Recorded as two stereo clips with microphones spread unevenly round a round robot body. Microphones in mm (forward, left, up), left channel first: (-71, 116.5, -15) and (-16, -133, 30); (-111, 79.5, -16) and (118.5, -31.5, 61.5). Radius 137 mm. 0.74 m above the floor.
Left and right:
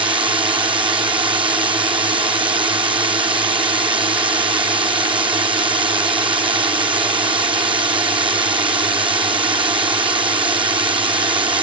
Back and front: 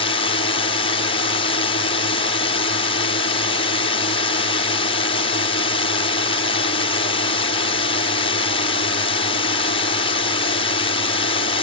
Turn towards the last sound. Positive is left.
turn(degrees=-150)